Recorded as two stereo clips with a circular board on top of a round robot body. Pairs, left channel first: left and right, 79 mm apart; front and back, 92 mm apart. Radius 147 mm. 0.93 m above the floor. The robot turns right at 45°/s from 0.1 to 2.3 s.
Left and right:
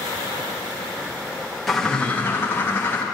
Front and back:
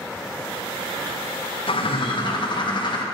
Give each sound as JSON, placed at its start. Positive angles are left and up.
{"t": 1.7, "sound": "a bird", "azimuth_deg": 0, "distance_m": 1.9}